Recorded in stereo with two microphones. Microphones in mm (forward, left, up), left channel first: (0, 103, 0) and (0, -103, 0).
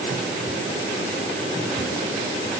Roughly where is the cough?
I don't hear a cough.